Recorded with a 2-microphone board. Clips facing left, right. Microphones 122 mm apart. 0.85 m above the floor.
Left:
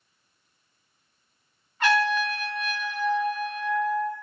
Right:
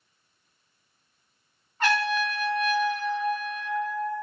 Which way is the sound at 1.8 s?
40° right (ahead or behind).